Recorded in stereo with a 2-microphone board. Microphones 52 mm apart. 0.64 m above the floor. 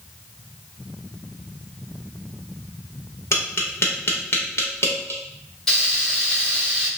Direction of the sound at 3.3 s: 60° left (ahead or behind).